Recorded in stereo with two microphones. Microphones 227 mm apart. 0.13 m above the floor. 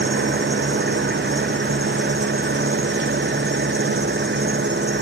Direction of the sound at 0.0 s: 50° right (ahead or behind).